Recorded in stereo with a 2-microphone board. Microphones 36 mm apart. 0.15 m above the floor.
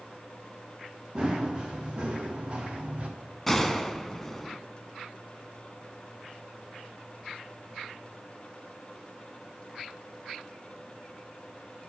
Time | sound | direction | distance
1.1 | running footsteps | 30° right (ahead or behind) | 3.5 m
3.5 | a gunshot | 10° left (ahead or behind) | 0.7 m